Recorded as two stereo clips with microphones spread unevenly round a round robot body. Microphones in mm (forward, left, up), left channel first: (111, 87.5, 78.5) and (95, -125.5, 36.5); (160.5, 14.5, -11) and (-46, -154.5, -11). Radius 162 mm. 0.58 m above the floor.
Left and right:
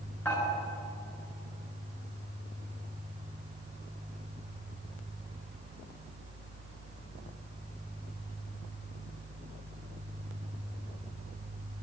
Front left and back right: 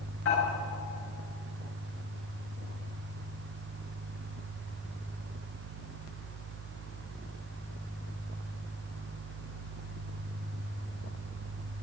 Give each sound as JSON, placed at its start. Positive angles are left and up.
{"t": 0.2, "sound": "dishes clattering", "azimuth_deg": 5, "distance_m": 6.5}